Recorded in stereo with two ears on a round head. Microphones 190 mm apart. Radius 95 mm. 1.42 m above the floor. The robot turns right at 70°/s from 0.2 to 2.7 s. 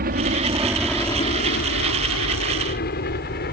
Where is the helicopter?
40° right (ahead or behind); by 3.5 s 45° left (ahead or behind).